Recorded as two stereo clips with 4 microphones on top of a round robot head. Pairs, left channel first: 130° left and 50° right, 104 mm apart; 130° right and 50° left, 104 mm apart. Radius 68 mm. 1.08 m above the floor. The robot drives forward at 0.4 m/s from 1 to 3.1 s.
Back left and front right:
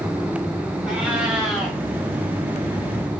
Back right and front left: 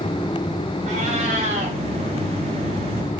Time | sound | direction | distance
0.8 | a cat meowing | 30° left | 3 m